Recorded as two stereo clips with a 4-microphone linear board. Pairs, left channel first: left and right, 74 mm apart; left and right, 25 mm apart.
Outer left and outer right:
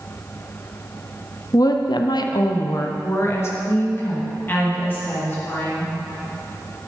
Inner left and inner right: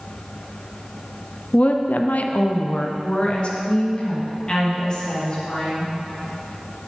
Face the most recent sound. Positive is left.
turn(degrees=25)  # may be behind; listen again after turning